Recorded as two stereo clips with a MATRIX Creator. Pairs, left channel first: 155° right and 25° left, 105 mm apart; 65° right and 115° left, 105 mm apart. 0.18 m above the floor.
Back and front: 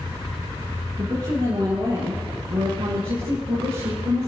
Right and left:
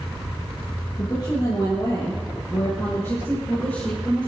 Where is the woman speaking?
25° right, 5 m; by 4.3 s 10° left, 4.5 m.